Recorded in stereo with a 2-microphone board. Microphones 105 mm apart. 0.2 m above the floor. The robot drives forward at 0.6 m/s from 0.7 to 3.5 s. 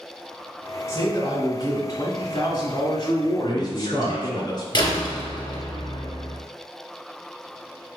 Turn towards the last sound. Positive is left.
turn(degrees=45)  # may be behind; listen again after turning